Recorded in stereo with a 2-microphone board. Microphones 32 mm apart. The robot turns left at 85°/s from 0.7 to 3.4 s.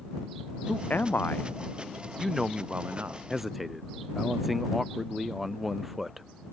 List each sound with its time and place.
0.7 s a man speaking: 130° left; by 3.2 s 85° right
3.3 s a man speaking: centre (ahead or behind); by 6.2 s 10° right (ahead or behind)